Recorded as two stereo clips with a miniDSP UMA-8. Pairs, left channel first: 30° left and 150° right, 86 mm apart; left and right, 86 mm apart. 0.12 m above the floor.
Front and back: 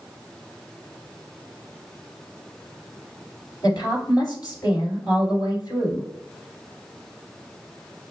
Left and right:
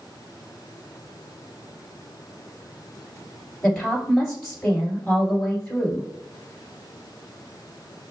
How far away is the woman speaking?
About 1.7 m.